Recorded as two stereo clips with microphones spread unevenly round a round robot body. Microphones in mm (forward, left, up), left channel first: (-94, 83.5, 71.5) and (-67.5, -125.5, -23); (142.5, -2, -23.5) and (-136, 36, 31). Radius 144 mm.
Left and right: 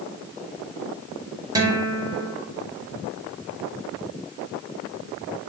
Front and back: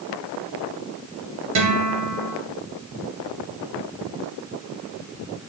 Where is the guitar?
140° right, 2.5 m.